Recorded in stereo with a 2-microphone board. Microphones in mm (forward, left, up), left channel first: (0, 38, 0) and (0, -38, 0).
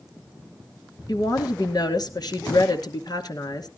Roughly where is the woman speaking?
Left.